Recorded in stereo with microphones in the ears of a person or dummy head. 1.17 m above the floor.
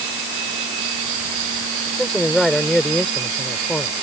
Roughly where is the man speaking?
Centre.